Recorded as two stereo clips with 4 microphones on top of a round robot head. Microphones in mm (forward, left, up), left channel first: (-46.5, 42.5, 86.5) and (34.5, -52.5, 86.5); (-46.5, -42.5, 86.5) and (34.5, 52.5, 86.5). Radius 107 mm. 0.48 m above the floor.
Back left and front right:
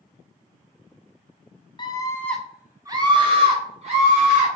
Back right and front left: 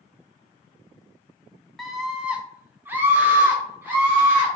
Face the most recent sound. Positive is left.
turn(degrees=-25)